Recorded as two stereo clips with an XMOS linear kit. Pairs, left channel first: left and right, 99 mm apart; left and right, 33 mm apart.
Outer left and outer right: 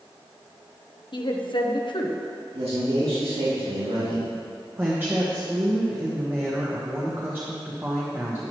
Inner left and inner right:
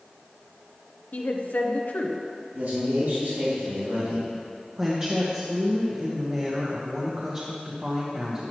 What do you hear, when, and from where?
1.1 s a woman speaking: 60° left (ahead or behind), 1.0 m
2.5 s a man speaking: 85° right, 2.5 m
4.8 s a woman speaking: 25° right (ahead or behind), 1.1 m